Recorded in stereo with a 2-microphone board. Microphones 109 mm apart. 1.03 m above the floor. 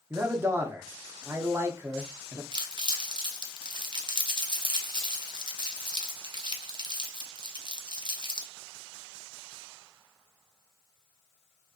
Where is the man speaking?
25° right (ahead or behind), 0.6 m.